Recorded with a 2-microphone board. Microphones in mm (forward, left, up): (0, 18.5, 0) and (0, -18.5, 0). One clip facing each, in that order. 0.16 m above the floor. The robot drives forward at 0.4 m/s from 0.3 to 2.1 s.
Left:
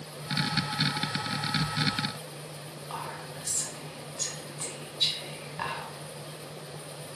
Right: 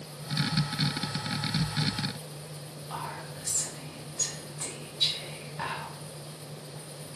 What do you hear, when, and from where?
2.9 s whispering: 15° left (ahead or behind), 1.2 m